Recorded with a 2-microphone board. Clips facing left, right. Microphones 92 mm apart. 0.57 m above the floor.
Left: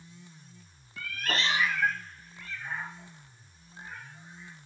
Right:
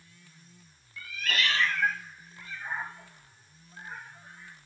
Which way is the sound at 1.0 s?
65° left (ahead or behind).